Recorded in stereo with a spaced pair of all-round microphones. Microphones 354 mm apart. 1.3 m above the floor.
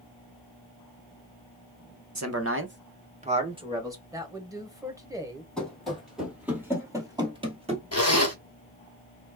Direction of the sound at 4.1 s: 10° right (ahead or behind).